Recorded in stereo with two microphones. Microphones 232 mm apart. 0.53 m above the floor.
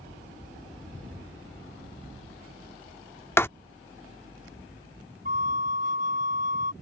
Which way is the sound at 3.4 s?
10° left (ahead or behind).